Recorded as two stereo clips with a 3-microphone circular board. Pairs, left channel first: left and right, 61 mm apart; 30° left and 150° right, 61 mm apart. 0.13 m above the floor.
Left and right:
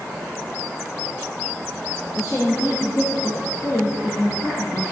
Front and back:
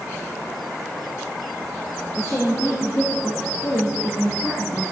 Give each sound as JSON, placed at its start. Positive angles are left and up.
{"t": 2.1, "sound": "a woman speaking", "azimuth_deg": 60, "distance_m": 6.5}